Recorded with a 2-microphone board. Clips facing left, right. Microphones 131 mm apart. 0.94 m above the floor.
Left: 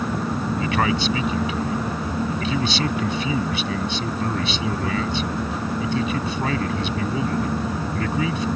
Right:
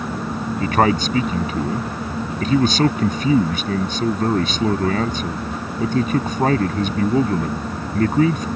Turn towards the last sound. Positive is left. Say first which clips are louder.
# right 6 dB
turn(degrees=-45)  # may be behind; listen again after turning